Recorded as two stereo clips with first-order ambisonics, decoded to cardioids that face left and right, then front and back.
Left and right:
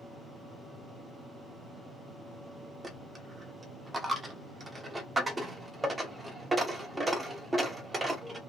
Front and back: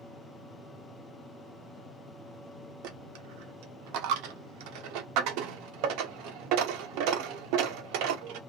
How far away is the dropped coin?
About 1.0 m.